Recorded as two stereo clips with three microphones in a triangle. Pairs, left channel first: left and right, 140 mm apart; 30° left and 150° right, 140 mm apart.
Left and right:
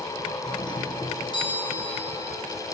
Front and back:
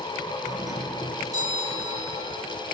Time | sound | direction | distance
0.4 | a doorbell | 145° left | 6 m